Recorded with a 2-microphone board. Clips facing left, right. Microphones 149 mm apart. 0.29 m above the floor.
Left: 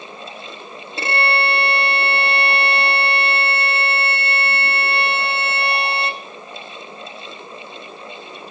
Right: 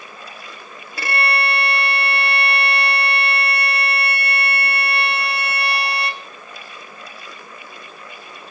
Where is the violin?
25° left (ahead or behind), 1.6 m.